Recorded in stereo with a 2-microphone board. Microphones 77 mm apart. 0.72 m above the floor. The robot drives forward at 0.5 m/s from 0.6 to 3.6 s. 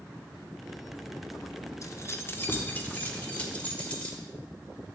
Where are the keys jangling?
45° left (ahead or behind), 0.6 m; by 4.2 s 20° left (ahead or behind), 1.4 m.